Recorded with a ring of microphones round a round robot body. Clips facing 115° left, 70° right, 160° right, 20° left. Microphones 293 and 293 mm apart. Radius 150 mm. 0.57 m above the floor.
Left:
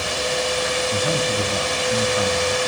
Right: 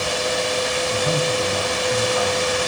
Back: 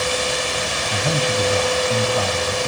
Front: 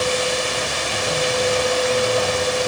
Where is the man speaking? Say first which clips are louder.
Right 2 dB, even; 165° left, 4 m.